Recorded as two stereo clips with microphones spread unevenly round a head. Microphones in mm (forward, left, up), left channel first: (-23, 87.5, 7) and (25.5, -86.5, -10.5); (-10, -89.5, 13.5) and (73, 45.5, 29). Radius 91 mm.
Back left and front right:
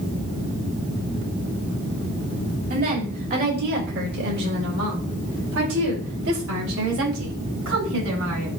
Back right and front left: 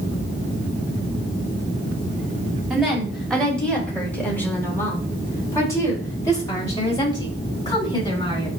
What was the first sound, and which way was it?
A woman speaking, 30° right.